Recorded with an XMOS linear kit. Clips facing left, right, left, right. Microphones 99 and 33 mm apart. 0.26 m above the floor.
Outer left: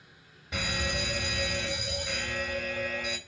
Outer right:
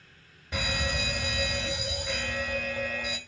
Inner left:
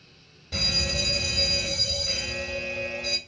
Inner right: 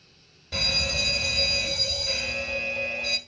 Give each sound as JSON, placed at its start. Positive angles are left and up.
{"t": 0.5, "sound": "a fire alarm", "side_deg": 0, "distance_m": 2.0}